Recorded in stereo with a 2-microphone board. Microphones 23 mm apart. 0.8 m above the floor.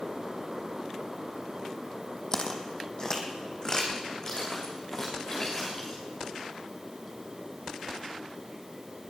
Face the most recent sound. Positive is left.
turn(degrees=25)  # may be behind; listen again after turning